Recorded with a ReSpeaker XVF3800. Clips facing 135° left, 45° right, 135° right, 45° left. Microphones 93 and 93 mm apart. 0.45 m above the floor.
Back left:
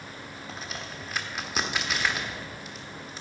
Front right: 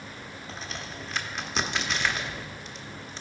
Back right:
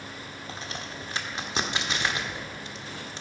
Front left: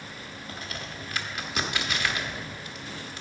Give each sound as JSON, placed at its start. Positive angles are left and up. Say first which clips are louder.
{"t": 0.5, "sound": "a crack", "louder": "even, back right 1 dB", "azimuth_deg": -145, "distance_m": 1.0}